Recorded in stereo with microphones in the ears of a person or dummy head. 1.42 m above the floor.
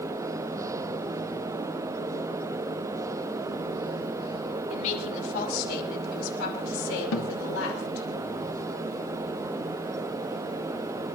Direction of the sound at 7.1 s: 75° left (ahead or behind).